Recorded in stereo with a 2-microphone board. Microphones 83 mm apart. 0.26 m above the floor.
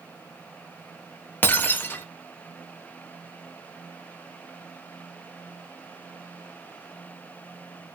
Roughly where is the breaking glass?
Left.